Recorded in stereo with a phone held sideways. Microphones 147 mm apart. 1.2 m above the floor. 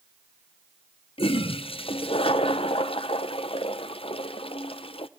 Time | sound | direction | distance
1.2 | a toilet flushing | 40° left (ahead or behind) | 0.8 m